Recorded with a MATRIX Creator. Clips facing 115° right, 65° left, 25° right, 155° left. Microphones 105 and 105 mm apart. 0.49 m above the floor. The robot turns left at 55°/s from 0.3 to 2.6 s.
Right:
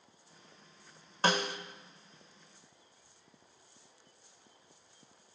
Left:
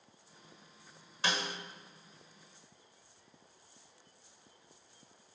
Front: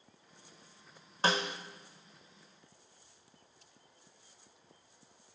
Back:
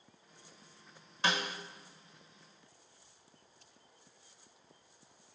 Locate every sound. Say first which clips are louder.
1.2 s a snare drum: right 6 dB, front 3 dB; 70° right, 1.0 m; by 1.6 s 90° right, 1.0 m